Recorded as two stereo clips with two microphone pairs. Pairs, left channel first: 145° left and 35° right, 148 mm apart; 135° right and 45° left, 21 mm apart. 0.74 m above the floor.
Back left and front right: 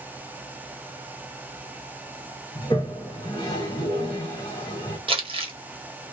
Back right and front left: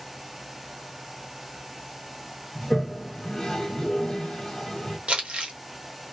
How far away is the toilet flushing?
About 0.8 m.